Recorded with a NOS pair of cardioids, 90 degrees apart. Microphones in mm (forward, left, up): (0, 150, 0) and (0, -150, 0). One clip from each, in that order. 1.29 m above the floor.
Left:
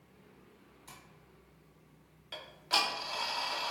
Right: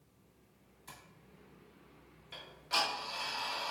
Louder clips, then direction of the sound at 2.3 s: Left 3 dB; 25° left.